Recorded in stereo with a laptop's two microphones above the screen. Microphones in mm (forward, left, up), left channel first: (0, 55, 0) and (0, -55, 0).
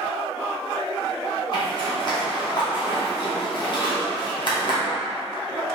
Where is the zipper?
45° left (ahead or behind), 1.0 m.